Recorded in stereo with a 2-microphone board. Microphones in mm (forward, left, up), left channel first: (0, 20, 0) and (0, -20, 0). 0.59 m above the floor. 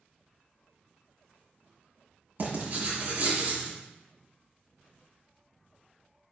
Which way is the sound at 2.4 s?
50° right (ahead or behind).